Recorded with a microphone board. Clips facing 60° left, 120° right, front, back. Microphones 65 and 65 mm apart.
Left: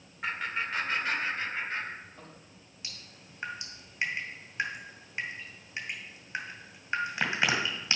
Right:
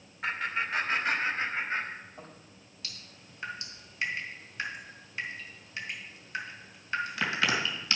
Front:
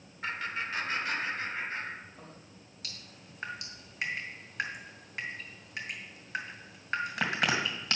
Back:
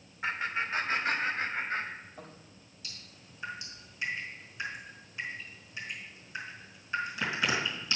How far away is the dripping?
About 2.0 m.